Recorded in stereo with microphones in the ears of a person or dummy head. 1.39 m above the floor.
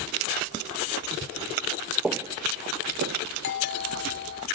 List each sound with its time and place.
2.0 s footsteps: 5° right (ahead or behind); by 4.0 s 65° right (ahead or behind)
3.4 s a doorbell: 55° left (ahead or behind)